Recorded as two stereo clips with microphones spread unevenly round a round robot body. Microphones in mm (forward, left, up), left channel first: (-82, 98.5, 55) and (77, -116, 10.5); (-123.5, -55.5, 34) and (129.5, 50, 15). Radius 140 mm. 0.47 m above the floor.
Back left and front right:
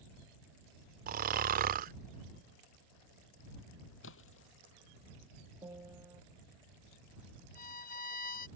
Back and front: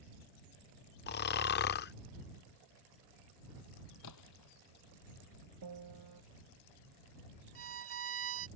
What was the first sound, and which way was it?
Snoring, 105° right.